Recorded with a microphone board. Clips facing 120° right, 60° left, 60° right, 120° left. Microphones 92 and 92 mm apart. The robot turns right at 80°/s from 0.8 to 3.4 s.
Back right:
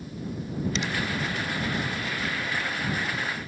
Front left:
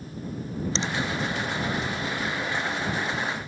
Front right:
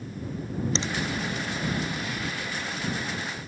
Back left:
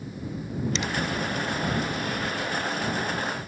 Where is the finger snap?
Straight ahead; by 0.9 s 10° left.